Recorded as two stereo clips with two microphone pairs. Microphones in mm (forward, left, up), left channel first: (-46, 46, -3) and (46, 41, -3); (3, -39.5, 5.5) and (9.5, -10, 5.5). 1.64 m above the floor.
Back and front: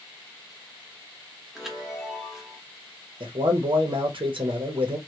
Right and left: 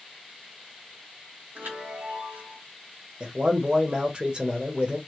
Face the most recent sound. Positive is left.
turn(degrees=20)